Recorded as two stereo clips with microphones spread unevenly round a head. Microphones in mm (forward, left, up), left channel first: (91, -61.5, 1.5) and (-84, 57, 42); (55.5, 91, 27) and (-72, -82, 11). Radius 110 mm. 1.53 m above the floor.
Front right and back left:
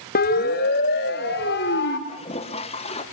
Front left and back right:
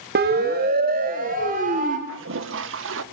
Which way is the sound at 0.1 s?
80° right.